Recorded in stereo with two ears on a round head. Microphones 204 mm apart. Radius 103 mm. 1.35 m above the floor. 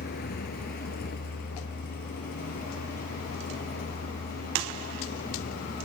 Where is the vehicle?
40° left (ahead or behind).